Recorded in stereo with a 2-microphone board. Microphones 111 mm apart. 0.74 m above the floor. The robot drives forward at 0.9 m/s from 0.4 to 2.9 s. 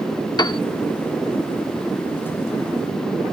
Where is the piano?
40° left (ahead or behind); by 0.6 s 45° left (ahead or behind).